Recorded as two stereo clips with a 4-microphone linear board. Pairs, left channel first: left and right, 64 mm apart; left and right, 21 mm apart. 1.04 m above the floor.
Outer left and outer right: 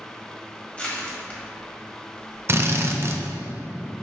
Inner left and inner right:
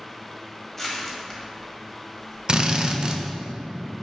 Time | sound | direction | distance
0.8 | crushing | 20° left (ahead or behind) | 1.9 m
2.5 | a drill | 45° right (ahead or behind) | 0.6 m